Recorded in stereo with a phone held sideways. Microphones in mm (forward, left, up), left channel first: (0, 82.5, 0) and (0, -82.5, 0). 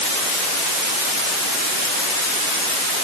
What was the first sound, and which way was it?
Only background noise.